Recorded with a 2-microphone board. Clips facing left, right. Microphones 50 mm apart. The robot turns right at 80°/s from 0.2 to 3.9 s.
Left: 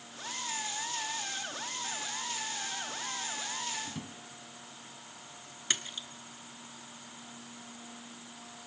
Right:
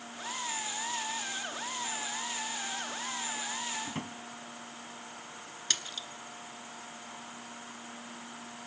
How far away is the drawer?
About 1.1 m.